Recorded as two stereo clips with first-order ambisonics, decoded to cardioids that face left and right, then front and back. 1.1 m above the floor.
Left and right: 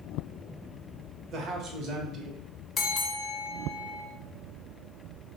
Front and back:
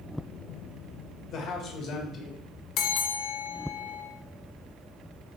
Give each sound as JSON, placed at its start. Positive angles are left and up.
{"t": 1.3, "sound": "a man speaking", "azimuth_deg": -45, "distance_m": 0.9}
{"t": 2.8, "sound": "a bell", "azimuth_deg": 25, "distance_m": 0.6}